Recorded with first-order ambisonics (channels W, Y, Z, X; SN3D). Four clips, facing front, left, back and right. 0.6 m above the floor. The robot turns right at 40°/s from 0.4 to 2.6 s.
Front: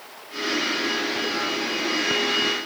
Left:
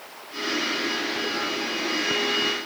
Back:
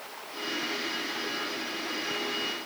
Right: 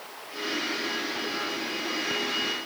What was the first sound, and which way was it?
Only background noise.